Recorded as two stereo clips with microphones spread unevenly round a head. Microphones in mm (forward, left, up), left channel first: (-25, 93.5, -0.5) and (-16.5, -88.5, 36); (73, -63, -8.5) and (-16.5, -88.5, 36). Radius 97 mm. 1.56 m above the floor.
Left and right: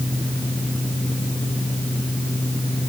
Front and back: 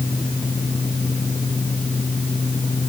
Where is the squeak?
No squeak in this recording.